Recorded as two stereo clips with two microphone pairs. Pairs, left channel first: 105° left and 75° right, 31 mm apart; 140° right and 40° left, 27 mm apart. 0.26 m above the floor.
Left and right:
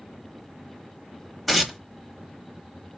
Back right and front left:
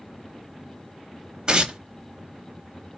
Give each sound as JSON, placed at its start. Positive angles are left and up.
{"t": 1.5, "sound": "tearing paper", "azimuth_deg": 20, "distance_m": 1.1}